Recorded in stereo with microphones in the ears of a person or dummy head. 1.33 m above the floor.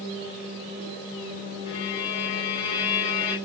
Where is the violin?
20° left (ahead or behind), 0.8 m.